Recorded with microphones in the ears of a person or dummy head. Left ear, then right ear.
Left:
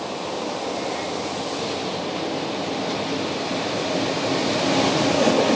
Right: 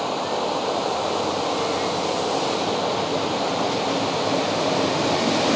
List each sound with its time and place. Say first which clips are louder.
0.0 s running water: right 4 dB; 65° right (ahead or behind)